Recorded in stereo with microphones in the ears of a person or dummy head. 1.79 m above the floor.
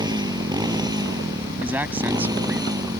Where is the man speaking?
15° right (ahead or behind).